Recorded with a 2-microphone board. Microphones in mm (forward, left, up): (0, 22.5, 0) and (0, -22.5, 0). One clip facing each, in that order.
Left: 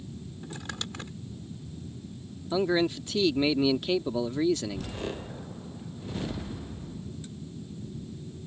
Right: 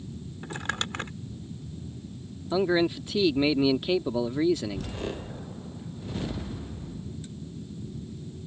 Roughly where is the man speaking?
Centre.